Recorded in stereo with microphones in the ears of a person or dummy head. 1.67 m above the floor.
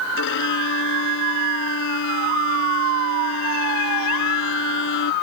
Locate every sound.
0.2 s a violin: 70° left (ahead or behind)